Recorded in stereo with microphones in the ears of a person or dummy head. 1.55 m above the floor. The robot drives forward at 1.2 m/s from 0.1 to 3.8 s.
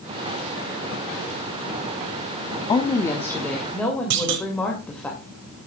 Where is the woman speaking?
25° left (ahead or behind), 0.8 m; by 5.1 s 10° left (ahead or behind), 1.9 m.